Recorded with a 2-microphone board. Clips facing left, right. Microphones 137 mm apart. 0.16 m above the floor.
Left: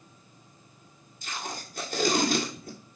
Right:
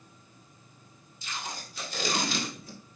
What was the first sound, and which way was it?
Tape being pulled, 50° left (ahead or behind).